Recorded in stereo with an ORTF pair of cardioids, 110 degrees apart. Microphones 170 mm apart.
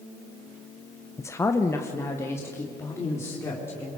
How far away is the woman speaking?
About 0.6 m.